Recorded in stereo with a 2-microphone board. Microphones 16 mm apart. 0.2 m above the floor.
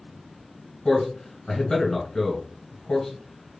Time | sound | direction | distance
0.8 | a man speaking | 45° left (ahead or behind) | 1.5 m